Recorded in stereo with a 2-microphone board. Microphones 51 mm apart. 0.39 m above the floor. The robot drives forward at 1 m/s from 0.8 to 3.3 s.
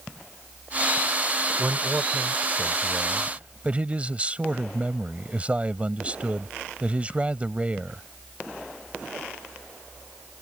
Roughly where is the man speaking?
Right.